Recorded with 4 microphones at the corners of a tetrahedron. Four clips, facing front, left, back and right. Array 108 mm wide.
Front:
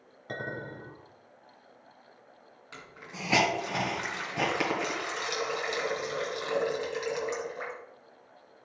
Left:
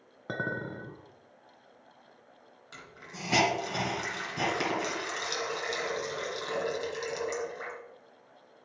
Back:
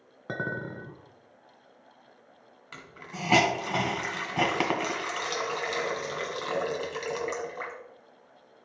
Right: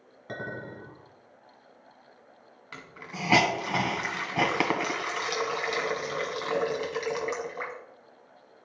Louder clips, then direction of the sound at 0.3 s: Left 3 dB, back 4 dB; 140° left.